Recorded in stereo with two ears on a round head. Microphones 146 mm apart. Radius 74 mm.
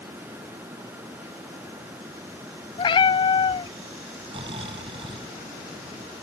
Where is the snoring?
30° right (ahead or behind).